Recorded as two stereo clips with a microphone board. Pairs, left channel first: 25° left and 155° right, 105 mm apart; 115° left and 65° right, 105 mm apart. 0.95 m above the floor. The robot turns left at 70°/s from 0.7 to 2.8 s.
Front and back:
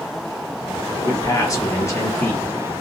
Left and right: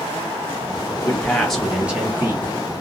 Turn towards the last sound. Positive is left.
turn(degrees=-60)